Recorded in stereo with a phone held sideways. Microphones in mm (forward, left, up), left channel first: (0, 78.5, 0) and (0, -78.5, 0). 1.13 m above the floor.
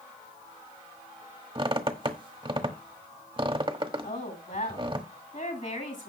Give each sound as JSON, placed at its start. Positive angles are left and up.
{"t": 1.6, "sound": "a squeak", "side_deg": -35, "distance_m": 1.1}
{"t": 4.0, "sound": "a woman speaking", "side_deg": 55, "distance_m": 7.5}